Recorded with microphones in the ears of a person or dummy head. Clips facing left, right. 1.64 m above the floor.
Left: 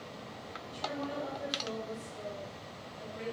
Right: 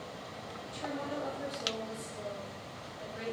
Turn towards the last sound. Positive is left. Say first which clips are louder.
# even
turn(degrees=-25)  # may be behind; listen again after turning